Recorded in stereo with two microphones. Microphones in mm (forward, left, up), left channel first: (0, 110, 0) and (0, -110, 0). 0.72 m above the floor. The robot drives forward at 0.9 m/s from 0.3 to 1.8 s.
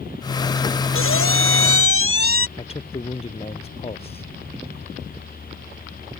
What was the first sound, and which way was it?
A squeak, 70° left (ahead or behind).